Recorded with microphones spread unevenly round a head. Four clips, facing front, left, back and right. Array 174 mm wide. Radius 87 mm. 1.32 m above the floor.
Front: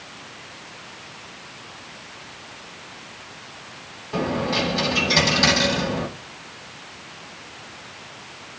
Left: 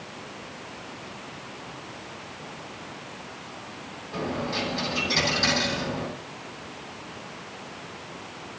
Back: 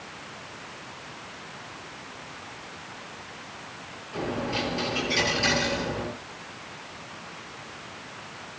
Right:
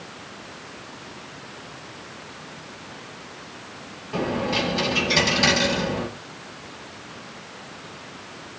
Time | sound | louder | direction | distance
4.1 | a dropped coin | right 5 dB, front 6 dB | 35° right | 8.5 m